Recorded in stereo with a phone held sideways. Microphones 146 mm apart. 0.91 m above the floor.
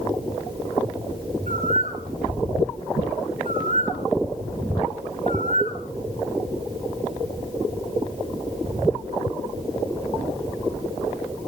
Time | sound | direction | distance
1.5 | a bird | 55° right (ahead or behind) | 4 m